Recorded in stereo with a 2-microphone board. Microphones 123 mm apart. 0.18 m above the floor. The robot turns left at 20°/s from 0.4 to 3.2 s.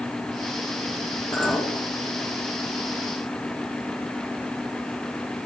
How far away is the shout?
No shout in this recording.